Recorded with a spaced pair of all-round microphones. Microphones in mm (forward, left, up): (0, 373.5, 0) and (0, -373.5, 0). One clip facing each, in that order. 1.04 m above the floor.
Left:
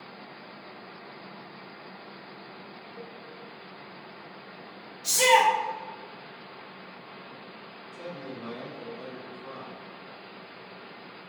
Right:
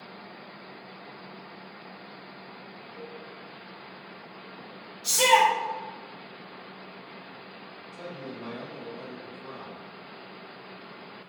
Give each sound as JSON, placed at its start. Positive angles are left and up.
{"t": 3.0, "sound": "a cowbell", "side_deg": -15, "distance_m": 1.2}
{"t": 5.0, "sound": "a shout", "side_deg": -30, "distance_m": 1.6}
{"t": 7.9, "sound": "a man speaking", "side_deg": 5, "distance_m": 1.2}